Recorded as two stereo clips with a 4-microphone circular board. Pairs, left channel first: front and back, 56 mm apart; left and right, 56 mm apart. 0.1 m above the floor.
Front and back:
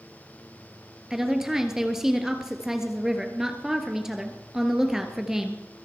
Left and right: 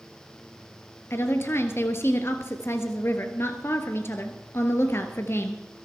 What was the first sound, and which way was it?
A woman speaking, 100° left.